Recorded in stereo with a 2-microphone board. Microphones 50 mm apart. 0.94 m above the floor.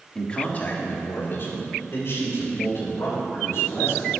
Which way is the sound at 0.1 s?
15° left (ahead or behind).